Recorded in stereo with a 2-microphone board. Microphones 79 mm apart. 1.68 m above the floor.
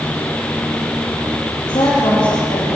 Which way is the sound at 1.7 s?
75° left (ahead or behind).